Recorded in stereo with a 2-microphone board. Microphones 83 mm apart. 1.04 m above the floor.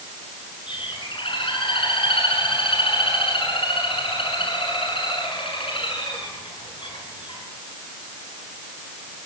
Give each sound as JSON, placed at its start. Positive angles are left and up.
{"t": 0.7, "sound": "a bird", "side_deg": 80, "distance_m": 7.0}